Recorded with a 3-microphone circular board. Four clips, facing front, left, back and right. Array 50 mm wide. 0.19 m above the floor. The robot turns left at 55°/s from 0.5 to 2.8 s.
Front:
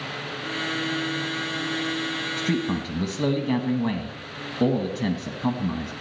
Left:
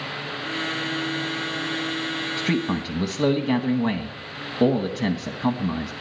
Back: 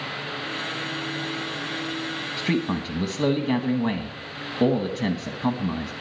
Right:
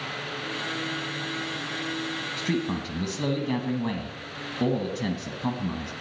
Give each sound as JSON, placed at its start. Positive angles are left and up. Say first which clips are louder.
{"t": 2.4, "sound": "a man speaking", "louder": "left 4 dB, back 2 dB", "azimuth_deg": 135, "distance_m": 1.0}